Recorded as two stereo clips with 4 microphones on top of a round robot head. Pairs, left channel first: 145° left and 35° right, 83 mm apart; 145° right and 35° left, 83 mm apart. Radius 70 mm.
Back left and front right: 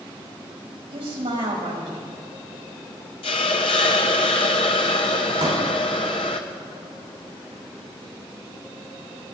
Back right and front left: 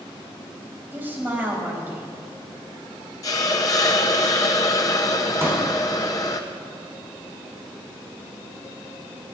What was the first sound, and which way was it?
A woman speaking, 35° right.